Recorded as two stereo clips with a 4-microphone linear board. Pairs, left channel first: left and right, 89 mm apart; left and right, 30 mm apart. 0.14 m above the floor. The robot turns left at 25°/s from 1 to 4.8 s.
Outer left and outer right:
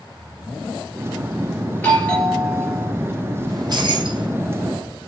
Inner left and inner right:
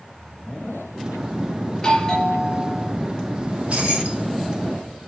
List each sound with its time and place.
1.7 s a doorbell: 20° left, 3.5 m; by 2.9 s 10° right, 3.5 m
3.5 s keys jangling: 45° right (ahead or behind), 3.5 m; by 4.3 s 65° right (ahead or behind), 3.5 m